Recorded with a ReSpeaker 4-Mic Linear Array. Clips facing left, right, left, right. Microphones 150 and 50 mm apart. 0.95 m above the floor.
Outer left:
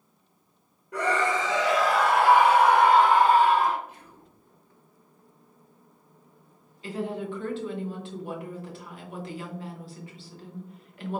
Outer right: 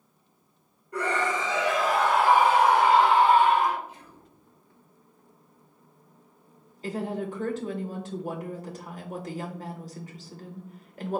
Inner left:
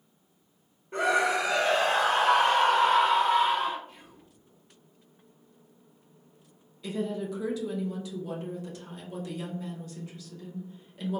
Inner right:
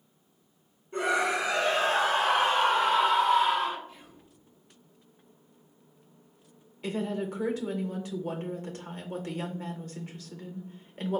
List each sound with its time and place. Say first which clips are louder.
0.9 s a scream: outer left 2 dB, inner left 2 dB; 80° left, 1.8 m; by 3.8 s 25° left (ahead or behind), 1.0 m
3.9 s whispering: outer right 1 dB, even; 55° left (ahead or behind), 1.5 m
6.8 s a woman speaking: outer right 1 dB, inner right 1 dB; 40° right (ahead or behind), 0.7 m